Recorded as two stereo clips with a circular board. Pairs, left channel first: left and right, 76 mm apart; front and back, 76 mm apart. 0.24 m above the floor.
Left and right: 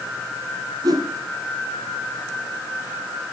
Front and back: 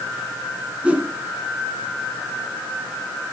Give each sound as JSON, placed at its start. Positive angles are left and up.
{"t": 0.8, "sound": "a whoosh", "azimuth_deg": -110, "distance_m": 3.0}